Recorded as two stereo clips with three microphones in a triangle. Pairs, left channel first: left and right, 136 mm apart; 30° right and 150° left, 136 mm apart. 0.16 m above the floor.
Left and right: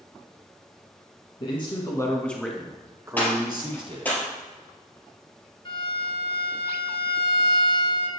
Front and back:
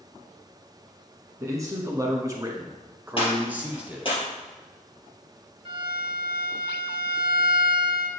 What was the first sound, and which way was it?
A man speaking, 95° left.